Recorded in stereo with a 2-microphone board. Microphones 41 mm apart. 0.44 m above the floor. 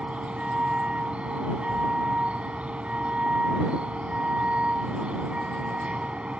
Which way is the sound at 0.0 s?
30° right (ahead or behind).